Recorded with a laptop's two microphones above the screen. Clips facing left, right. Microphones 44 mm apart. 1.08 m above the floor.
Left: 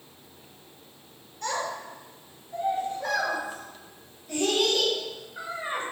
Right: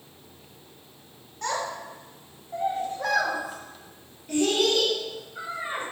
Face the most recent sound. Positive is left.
turn(degrees=-25)  # may be behind; listen again after turning